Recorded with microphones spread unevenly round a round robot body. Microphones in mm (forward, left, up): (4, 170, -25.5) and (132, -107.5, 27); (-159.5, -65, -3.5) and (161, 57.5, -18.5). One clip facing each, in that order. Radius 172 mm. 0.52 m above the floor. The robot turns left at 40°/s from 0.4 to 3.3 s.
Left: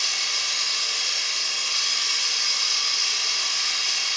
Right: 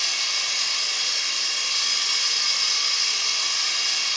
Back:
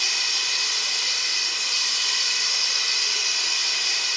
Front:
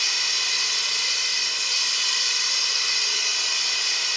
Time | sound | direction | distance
0.0 | running water | 50° left | 1.2 m